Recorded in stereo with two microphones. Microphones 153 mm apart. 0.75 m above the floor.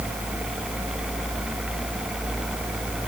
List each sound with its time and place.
Only background noise.